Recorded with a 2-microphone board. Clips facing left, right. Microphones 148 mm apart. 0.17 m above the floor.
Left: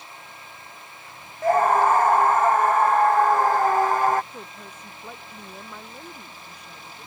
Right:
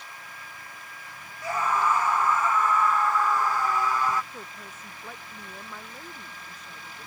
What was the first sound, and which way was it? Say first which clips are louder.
A scream: left 8 dB; 55° left (ahead or behind).